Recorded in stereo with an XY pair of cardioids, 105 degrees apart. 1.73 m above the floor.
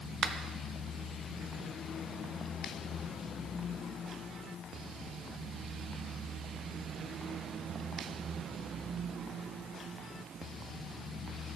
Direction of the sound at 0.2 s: 55° right.